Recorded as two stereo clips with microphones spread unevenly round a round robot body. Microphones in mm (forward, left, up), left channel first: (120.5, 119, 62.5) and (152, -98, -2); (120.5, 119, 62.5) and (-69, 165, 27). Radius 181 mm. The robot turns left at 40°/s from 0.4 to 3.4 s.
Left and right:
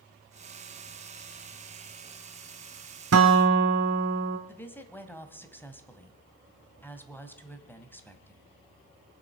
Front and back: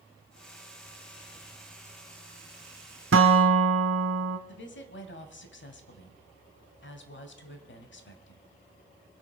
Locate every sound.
3.1 s a guitar: 135° right, 0.5 m; by 4.4 s 150° right, 0.5 m
4.5 s a woman speaking: 10° left, 2.5 m